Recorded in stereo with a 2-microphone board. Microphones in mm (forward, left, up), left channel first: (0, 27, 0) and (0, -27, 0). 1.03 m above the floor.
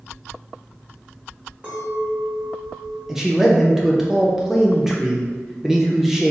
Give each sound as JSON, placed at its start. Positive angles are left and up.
{"t": 1.6, "sound": "a clink", "side_deg": -35, "distance_m": 1.9}
{"t": 3.1, "sound": "a man speaking", "side_deg": -10, "distance_m": 0.7}